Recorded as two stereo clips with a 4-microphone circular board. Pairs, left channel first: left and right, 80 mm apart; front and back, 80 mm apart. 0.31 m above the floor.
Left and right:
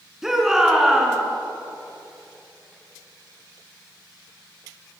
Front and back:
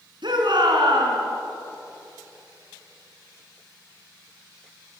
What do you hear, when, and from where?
0.2 s a shout: 175° right, 4.5 m